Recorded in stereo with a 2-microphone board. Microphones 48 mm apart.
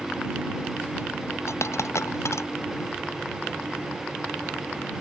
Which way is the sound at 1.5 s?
70° left (ahead or behind).